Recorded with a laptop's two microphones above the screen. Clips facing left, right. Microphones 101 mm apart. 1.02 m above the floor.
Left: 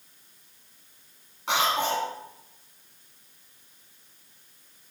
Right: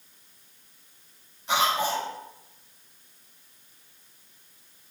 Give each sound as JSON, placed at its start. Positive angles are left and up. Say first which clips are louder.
{"t": 1.5, "sound": "a cough", "louder": "even", "side_deg": 85, "distance_m": 3.5}